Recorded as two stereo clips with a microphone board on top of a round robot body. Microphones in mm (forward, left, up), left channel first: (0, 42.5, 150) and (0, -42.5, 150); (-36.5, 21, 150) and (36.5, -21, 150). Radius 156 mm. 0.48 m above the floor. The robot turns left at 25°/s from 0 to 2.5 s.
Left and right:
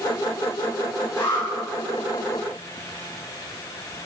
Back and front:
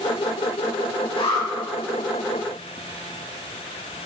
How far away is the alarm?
About 4.5 m.